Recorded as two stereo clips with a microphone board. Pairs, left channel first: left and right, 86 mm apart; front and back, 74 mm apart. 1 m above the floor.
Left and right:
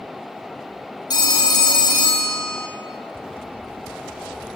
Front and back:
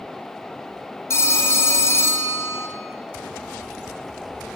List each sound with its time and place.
1.1 s a phone ringing: 50° left, 1.7 m